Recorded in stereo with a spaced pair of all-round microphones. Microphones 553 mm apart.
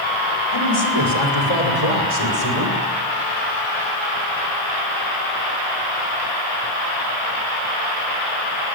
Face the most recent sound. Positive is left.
turn(degrees=75)  # may be behind; listen again after turning